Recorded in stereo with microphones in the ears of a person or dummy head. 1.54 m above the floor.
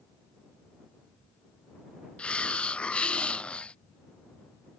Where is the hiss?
5° left (ahead or behind).